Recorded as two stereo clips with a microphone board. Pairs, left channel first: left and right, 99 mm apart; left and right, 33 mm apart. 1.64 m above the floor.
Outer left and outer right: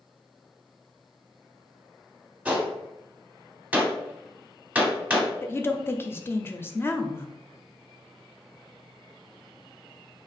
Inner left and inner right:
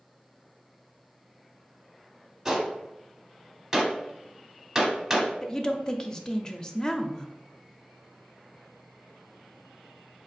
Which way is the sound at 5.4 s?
25° left (ahead or behind).